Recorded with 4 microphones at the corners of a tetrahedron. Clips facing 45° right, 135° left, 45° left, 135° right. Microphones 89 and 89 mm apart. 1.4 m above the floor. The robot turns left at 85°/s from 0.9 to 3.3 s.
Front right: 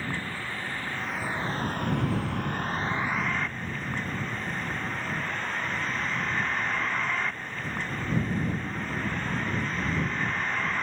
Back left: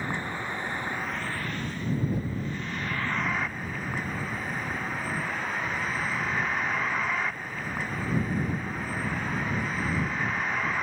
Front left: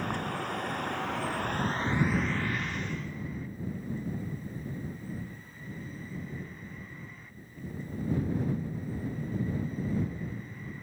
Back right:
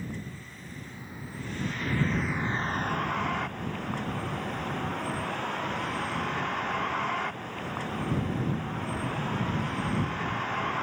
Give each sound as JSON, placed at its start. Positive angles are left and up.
{"t": 0.0, "sound": "a vehicle", "azimuth_deg": 65}